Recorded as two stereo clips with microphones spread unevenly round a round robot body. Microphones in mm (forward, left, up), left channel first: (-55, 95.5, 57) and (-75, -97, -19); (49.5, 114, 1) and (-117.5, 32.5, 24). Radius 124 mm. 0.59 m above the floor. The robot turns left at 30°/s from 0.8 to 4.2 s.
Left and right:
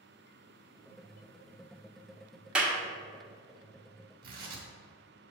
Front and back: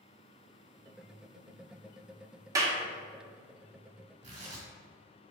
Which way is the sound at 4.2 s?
90° right.